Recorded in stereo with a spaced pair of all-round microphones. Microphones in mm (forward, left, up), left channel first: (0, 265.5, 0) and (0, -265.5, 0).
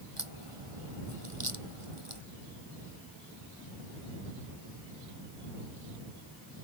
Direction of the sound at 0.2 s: 75° right (ahead or behind).